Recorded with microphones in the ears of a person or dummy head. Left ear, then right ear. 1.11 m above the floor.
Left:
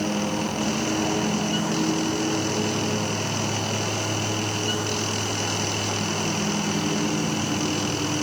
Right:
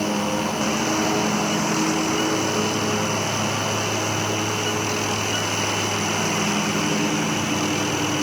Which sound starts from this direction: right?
A lawn mower, at 0.0 s.